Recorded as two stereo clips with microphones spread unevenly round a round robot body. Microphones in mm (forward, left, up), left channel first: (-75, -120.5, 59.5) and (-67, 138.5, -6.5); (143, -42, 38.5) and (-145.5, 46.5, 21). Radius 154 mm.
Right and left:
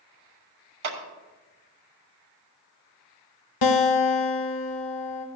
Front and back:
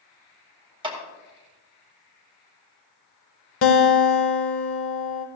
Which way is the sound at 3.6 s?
65° right.